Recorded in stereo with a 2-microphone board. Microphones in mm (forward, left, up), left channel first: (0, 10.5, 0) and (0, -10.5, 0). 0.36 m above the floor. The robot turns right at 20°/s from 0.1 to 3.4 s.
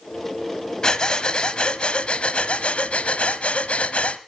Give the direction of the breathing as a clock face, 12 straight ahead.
11 o'clock.